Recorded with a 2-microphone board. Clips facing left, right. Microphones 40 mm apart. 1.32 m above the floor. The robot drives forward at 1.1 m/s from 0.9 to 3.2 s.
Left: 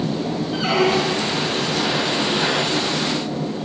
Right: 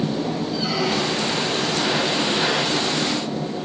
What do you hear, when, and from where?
0.5 s a squeak: 55° left (ahead or behind), 1.5 m; by 1.4 s 40° left (ahead or behind), 1.9 m